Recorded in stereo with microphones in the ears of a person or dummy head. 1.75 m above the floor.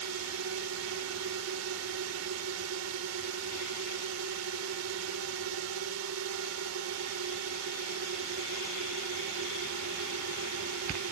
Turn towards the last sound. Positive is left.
turn(degrees=-80)